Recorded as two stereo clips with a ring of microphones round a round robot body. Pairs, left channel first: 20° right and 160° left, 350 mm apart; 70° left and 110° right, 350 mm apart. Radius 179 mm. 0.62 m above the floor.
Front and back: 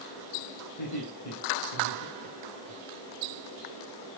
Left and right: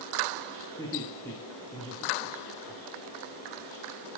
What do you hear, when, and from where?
0.8 s laughter: 15° right, 4.5 m